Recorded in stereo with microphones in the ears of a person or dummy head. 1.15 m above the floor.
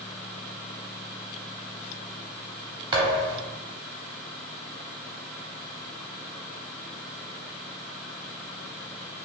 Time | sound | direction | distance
2.9 | a thud | 30° right (ahead or behind) | 0.9 m